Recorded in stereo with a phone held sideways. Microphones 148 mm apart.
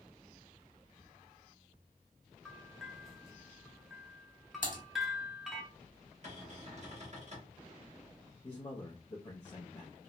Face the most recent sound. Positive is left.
turn(degrees=40)  # may be behind; listen again after turning